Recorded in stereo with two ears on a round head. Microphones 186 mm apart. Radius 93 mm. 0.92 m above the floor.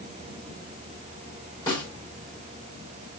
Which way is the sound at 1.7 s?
20° left (ahead or behind).